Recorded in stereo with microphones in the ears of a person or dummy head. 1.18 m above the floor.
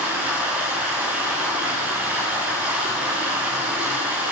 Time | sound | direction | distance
0.0 | running water | 10° right (ahead or behind) | 7 m